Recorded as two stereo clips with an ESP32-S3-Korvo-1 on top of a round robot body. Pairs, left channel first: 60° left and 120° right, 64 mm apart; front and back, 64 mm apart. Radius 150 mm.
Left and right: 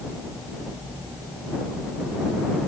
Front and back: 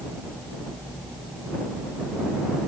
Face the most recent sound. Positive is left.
No sound to turn to.